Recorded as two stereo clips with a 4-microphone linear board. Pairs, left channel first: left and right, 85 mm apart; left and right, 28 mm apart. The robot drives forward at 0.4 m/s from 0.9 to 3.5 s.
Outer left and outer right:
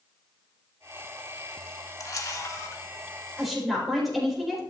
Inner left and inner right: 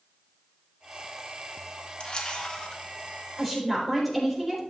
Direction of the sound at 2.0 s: 45° left (ahead or behind).